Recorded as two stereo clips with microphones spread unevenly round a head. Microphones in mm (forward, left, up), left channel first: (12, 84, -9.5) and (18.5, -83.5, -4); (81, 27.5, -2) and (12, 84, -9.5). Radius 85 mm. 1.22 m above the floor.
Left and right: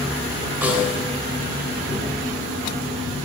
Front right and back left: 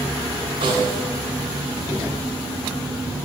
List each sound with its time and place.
0.6 s a snare drum: 165° right, 3 m